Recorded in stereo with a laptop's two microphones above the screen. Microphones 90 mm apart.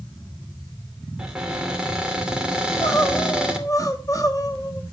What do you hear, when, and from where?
1.2 s a cupboard door: 10° right (ahead or behind), 3 m
2.6 s crying: 35° left (ahead or behind), 1.2 m